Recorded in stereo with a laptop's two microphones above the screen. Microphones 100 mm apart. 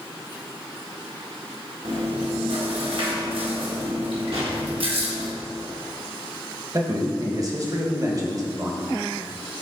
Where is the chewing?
65° right (ahead or behind), 1.5 m.